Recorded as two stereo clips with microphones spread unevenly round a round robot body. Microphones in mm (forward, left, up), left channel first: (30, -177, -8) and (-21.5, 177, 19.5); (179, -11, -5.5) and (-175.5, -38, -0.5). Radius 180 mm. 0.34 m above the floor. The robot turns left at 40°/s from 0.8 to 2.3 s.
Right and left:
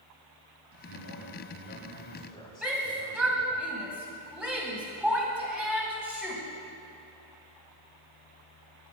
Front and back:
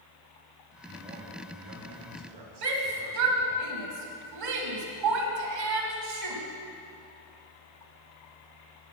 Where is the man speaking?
100° right, 1.8 m; by 3.6 s 155° right, 1.8 m.